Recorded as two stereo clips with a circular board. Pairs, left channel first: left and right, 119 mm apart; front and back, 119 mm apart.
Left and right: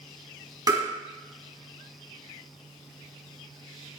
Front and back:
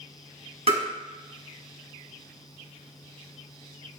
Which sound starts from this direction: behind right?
Tapping, at 0.7 s.